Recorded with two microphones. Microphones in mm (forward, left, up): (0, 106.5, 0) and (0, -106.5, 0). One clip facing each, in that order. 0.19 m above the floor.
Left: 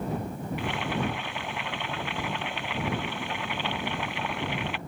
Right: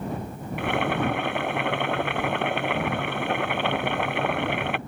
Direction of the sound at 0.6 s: 60° right (ahead or behind).